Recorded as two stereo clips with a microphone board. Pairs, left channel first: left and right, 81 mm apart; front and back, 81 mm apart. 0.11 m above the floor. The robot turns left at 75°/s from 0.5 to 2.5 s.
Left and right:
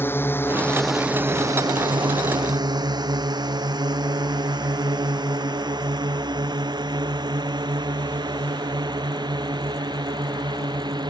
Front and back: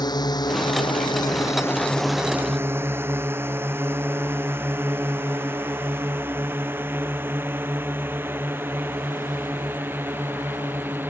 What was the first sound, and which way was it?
A drone, 25° left.